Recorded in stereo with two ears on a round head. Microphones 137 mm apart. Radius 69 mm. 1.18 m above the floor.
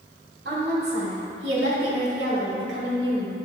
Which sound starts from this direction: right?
A woman speaking, at 0.5 s.